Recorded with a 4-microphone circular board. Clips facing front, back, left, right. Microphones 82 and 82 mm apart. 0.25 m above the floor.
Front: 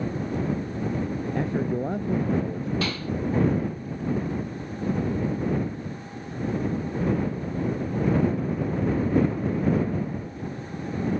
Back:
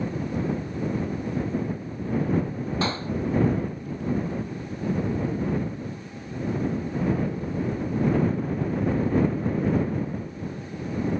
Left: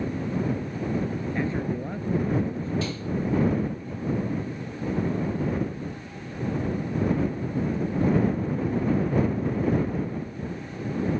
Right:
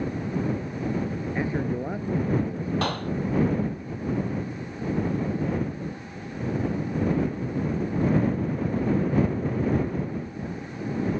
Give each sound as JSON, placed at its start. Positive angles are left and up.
{"t": 1.4, "sound": "a man speaking", "azimuth_deg": -15}
{"t": 2.8, "sound": "a clap", "azimuth_deg": -120}